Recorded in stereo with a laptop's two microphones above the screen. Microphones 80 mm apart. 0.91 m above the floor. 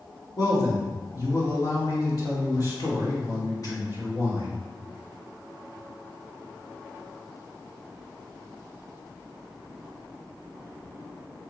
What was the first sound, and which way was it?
A man speaking, 50° left (ahead or behind).